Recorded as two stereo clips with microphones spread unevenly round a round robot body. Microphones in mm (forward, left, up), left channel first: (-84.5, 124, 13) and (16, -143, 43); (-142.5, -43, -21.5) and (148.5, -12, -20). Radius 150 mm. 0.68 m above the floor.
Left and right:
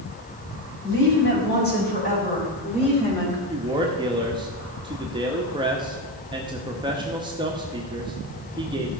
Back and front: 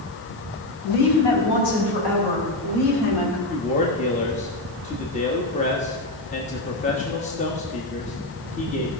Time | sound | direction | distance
0.8 | a woman speaking | 160° left | 5 m
3.5 | a man speaking | 140° right | 1.2 m